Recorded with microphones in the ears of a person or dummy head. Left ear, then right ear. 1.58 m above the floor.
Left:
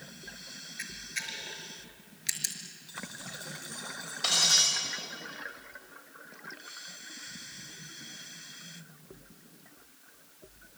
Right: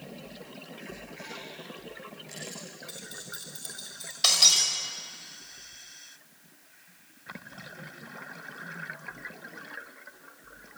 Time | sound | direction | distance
0.8 | a camera shutter | 55° left (ahead or behind) | 4 m
2.9 | keys jangling | 20° right (ahead or behind) | 7 m
4.2 | breaking glass | 25° right (ahead or behind) | 5.5 m